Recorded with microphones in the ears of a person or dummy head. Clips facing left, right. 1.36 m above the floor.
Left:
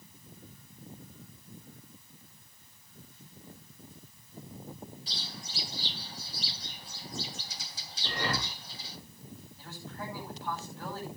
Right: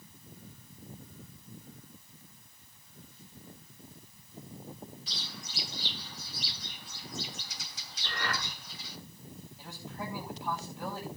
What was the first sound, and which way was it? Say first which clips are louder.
A bird: left 1 dB; 30° left (ahead or behind).